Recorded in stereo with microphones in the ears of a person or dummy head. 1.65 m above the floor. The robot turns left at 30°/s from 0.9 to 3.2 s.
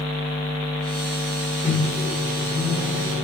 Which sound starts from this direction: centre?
A microwave, at 1.6 s.